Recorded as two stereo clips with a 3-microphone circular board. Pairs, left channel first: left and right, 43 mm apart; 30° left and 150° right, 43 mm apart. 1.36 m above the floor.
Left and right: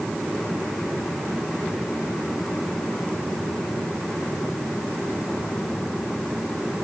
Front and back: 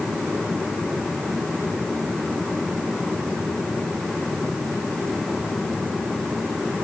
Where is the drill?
No drill in this recording.